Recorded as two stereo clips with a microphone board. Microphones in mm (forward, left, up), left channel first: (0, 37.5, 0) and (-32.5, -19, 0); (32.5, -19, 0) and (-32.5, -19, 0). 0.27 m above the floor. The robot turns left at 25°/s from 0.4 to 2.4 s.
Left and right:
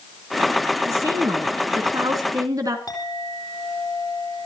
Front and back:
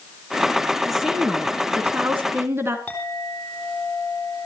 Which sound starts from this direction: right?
A woman speaking, at 0.9 s.